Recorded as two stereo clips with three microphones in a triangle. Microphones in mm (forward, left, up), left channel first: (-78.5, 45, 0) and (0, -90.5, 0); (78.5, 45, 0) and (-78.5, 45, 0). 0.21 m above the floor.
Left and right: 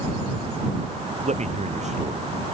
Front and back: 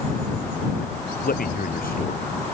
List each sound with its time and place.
1.2 s a man speaking: 20° right